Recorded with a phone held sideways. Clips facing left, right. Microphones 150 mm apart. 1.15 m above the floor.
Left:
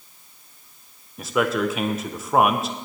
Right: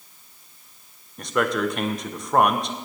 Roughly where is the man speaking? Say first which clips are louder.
Left 1 dB; centre.